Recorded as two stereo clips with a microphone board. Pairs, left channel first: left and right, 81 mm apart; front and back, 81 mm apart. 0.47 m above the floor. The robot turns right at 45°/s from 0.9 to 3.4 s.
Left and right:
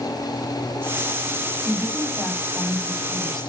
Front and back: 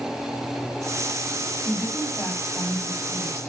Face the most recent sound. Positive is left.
turn(degrees=15)